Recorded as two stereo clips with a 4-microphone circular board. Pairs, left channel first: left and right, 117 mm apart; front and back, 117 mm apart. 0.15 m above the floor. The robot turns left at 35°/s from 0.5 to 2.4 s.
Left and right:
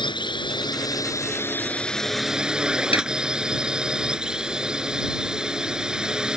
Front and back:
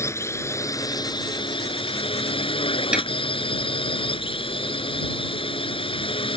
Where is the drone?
60° left; by 6.4 s 10° right.